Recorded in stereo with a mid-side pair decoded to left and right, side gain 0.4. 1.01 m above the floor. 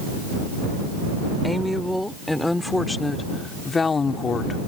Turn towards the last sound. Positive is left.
turn(degrees=50)